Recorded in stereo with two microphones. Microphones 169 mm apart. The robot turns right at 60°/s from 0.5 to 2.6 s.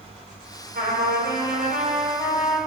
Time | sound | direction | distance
0.8 | a trumpet | 115° right | 1.0 m